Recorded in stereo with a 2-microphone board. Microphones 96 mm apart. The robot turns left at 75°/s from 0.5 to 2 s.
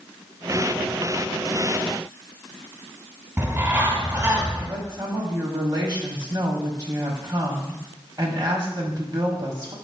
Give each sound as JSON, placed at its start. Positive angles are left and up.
{"t": 3.4, "sound": "a bird", "side_deg": -25, "distance_m": 1.5}
{"t": 4.7, "sound": "a woman speaking", "side_deg": -45, "distance_m": 1.3}